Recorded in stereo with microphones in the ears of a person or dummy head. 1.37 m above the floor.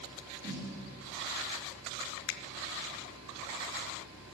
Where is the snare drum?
55° right (ahead or behind), 4.5 m.